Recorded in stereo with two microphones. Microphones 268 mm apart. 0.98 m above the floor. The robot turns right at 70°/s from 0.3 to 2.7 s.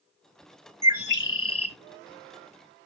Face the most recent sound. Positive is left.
turn(degrees=160)